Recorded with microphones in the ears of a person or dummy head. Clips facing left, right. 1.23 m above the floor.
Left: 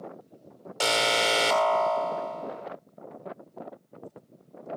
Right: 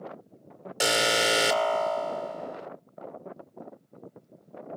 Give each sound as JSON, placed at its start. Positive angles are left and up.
{"t": 0.8, "sound": "an alarm", "side_deg": -15, "distance_m": 1.4}